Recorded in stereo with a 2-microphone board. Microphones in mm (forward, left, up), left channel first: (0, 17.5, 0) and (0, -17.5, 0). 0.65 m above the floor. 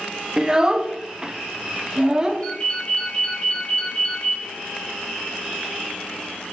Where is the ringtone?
30° left (ahead or behind), 3.5 m.